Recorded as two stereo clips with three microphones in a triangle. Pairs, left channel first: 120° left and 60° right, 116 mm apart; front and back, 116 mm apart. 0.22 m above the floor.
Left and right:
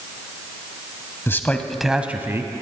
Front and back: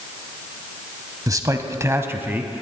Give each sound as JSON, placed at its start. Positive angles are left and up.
{"t": 1.3, "sound": "a man speaking", "azimuth_deg": 170, "distance_m": 1.1}